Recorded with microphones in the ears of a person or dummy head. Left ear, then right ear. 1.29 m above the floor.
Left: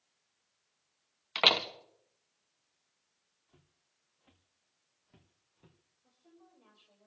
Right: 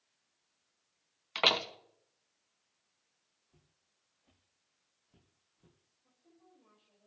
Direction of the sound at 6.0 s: 45° left (ahead or behind).